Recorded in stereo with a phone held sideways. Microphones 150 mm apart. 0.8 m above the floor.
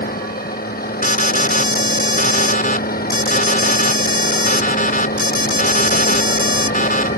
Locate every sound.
0.0 s a vehicle: 80° left
1.0 s an alarm: 70° left (ahead or behind)